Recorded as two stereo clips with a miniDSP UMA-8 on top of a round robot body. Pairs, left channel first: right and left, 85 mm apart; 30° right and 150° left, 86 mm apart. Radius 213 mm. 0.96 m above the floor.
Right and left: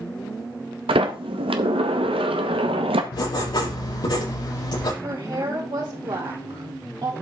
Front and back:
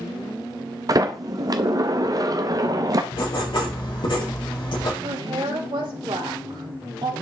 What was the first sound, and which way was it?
A sliding door, 100° left.